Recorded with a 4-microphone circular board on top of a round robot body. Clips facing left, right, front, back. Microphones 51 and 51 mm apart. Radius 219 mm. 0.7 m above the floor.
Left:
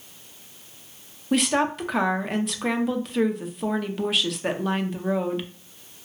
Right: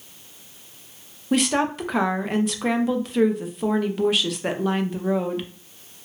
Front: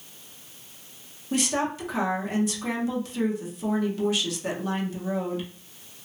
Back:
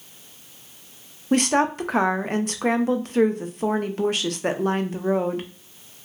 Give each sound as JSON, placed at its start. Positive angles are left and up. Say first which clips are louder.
{"t": 1.3, "sound": "a woman speaking", "louder": "right 1 dB, back 6 dB", "azimuth_deg": 180, "distance_m": 0.6}